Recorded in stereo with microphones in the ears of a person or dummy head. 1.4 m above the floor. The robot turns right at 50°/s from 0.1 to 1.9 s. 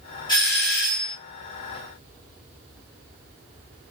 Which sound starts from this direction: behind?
A doorbell, at 0.3 s.